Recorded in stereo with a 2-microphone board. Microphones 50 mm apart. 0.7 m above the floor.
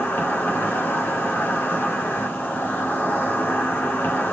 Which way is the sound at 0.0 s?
40° left (ahead or behind).